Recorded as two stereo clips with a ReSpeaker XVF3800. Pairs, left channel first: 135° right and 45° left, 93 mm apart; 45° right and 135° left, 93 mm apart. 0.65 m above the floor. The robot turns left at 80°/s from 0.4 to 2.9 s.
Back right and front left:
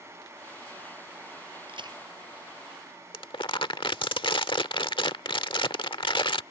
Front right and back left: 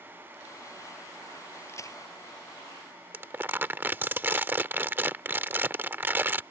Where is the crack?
20° left; by 2.0 s straight ahead.